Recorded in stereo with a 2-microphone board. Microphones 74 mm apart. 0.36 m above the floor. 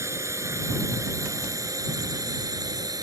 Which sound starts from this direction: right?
A drone, at 0.0 s.